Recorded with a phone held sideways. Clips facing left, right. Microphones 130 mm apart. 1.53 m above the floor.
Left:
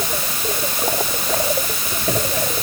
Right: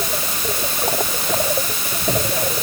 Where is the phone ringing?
I don't hear a phone ringing.